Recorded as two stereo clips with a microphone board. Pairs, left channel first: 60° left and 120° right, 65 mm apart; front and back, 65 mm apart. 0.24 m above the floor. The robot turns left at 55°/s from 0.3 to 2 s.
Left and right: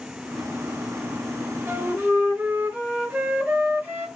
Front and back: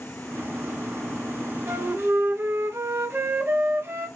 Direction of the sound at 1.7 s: 155° right.